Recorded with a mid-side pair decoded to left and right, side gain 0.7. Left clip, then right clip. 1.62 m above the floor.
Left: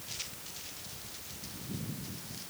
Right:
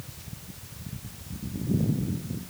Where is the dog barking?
No dog barking in this recording.